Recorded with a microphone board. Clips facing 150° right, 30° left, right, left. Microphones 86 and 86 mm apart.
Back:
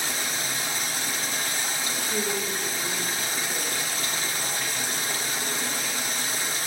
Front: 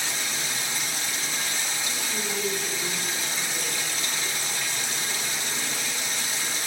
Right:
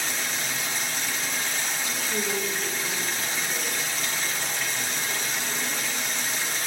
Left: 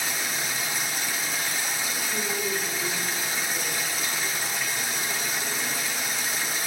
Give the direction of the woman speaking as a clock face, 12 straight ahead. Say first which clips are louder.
Back 1 dB, right 1 dB; 5 o'clock.